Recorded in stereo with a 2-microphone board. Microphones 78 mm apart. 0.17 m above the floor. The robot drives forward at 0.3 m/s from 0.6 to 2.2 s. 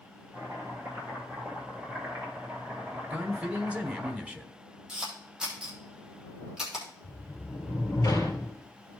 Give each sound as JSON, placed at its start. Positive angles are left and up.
{"t": 0.3, "sound": "chopping", "side_deg": -35, "distance_m": 4.0}
{"t": 3.1, "sound": "a man speaking", "side_deg": -15, "distance_m": 1.0}
{"t": 4.9, "sound": "a camera shutter", "side_deg": -10, "distance_m": 3.5}
{"t": 7.0, "sound": "a sliding door", "side_deg": 40, "distance_m": 3.5}